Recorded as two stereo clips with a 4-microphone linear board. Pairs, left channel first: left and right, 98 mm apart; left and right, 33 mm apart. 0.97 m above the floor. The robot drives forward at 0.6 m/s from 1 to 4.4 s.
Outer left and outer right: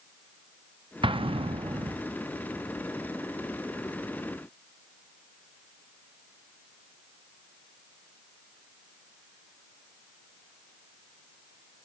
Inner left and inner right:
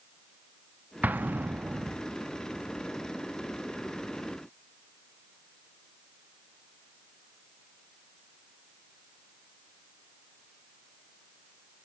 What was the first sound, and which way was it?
An explosion, 65° right (ahead or behind).